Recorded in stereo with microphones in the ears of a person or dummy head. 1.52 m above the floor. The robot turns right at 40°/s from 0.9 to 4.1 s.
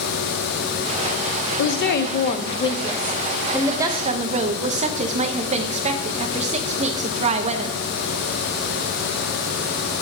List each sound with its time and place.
1.6 s a woman speaking: 110° left, 0.8 m; by 7.8 s 150° right, 0.8 m